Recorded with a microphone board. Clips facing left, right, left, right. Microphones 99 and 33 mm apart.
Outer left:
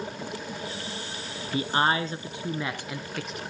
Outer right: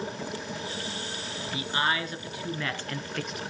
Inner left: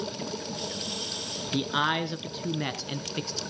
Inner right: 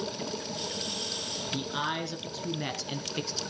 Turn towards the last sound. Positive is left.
turn(degrees=0)  # may be behind; listen again after turning